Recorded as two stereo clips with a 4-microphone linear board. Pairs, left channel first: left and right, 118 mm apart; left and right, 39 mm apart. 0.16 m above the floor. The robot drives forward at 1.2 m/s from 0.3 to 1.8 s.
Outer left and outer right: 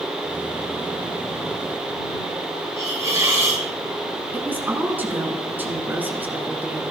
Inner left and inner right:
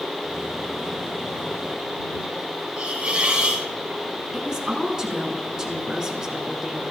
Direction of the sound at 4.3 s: 15° right (ahead or behind).